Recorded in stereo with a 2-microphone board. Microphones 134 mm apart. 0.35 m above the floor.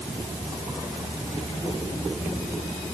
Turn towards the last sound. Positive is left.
No sound to turn to.